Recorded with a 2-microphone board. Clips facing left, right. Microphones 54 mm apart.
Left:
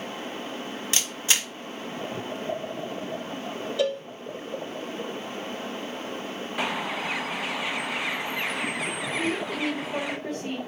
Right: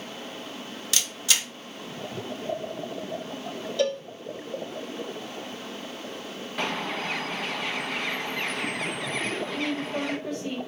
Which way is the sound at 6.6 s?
10° left (ahead or behind).